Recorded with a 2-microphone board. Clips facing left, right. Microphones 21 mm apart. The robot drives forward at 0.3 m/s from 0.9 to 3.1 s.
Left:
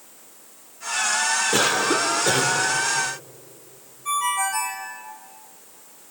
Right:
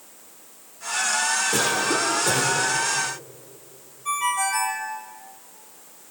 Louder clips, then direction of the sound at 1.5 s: Left 2 dB; 30° left (ahead or behind).